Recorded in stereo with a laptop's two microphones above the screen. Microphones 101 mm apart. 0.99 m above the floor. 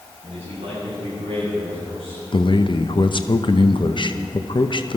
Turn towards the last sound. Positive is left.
turn(degrees=50)  # may be behind; listen again after turning